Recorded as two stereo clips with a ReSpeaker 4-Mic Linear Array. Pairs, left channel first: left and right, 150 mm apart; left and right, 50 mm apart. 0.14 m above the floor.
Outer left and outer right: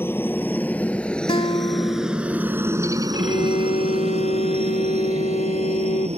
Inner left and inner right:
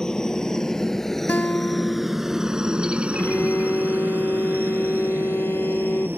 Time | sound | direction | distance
0.0 | a helicopter | 15° left (ahead or behind) | ?
1.3 | a guitar | 35° left (ahead or behind) | ?
3.1 | a violin | 50° left (ahead or behind) | ?